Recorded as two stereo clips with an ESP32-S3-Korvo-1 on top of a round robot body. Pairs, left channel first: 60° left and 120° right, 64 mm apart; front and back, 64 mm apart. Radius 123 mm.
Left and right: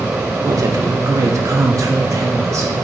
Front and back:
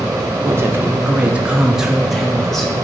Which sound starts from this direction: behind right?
A woman speaking, at 0.4 s.